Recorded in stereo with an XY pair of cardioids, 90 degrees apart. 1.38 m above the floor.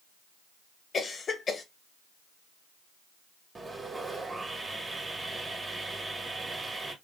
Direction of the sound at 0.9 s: 50° left.